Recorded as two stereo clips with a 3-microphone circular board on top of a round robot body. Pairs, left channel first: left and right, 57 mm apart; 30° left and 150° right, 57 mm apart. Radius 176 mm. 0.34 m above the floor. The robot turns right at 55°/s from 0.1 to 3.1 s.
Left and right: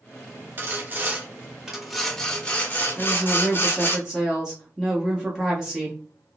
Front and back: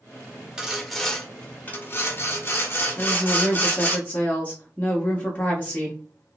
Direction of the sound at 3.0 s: 25° right.